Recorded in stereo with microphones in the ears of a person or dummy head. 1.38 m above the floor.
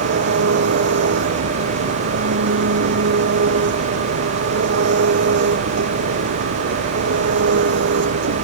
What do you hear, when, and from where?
0.0 s an engine running: 65° right (ahead or behind)